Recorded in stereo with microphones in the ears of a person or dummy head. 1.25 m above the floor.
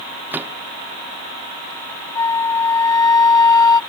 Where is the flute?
25° left (ahead or behind).